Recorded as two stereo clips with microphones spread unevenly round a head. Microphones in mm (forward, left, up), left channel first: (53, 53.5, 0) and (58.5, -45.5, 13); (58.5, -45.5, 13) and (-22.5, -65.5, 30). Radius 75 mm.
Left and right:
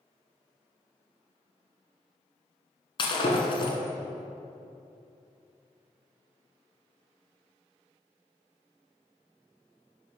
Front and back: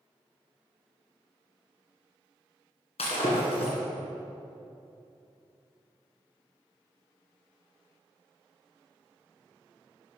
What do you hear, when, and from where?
3.0 s breaking glass: 55° left, 2 m